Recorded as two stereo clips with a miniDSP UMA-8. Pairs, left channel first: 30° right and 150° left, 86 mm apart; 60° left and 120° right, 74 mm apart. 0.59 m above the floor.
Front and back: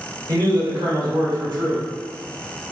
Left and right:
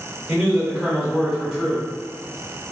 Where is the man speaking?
150° left, 1.1 m.